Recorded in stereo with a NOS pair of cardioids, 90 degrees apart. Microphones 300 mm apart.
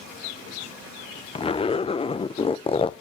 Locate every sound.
1.4 s a zipper: 20° left, 0.6 m